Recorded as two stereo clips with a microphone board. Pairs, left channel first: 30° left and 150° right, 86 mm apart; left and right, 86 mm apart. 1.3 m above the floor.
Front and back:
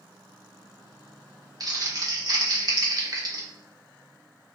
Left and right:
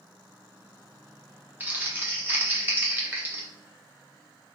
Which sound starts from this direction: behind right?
Crumpling, at 1.6 s.